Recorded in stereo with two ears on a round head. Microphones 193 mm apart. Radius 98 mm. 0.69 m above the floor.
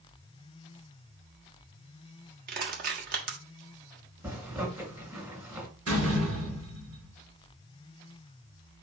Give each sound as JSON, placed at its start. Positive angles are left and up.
{"t": 2.5, "sound": "crushing", "side_deg": -45, "distance_m": 1.5}
{"t": 4.2, "sound": "a zipper", "side_deg": -15, "distance_m": 3.0}
{"t": 5.9, "sound": "a door slam", "side_deg": -65, "distance_m": 4.0}